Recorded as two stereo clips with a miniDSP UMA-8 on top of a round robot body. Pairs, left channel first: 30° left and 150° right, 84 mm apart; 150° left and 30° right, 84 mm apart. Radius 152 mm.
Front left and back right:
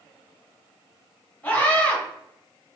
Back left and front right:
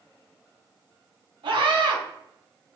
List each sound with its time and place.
1.4 s a scream: 45° right, 2 m